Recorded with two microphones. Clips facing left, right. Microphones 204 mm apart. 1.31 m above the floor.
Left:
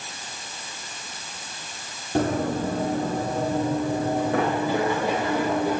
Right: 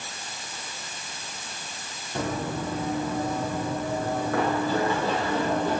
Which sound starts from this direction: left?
Running footsteps, at 2.1 s.